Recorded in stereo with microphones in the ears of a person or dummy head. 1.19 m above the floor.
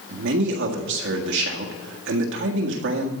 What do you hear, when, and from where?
0.1 s a man speaking: 65° right (ahead or behind), 1.7 m